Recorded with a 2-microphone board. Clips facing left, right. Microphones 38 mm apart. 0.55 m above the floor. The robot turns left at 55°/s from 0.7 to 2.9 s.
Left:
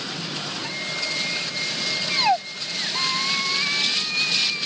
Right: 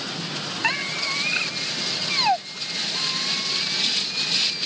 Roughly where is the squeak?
Right.